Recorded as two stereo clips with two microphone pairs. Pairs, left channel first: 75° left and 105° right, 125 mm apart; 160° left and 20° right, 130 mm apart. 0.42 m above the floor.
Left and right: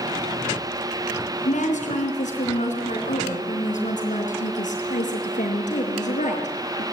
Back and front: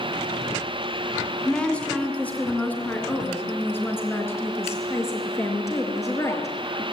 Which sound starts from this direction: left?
A woman speaking, at 1.4 s.